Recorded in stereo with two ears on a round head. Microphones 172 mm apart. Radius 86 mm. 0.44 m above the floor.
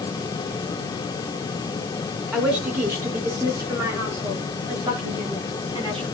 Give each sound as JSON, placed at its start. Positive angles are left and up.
{"t": 2.3, "sound": "a woman speaking", "side_deg": -5, "distance_m": 4.0}